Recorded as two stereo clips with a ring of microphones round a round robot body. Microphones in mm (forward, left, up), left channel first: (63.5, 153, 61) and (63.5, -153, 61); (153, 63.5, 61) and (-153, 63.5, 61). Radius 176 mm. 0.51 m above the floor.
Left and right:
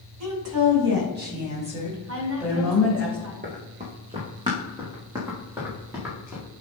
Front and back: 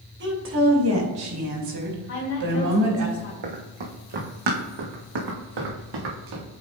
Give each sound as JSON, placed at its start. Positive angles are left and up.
{"t": 0.2, "sound": "a woman speaking", "azimuth_deg": -125, "distance_m": 3.0}
{"t": 2.1, "sound": "a woman speaking", "azimuth_deg": -45, "distance_m": 3.0}
{"t": 3.4, "sound": "running footsteps", "azimuth_deg": -160, "distance_m": 2.0}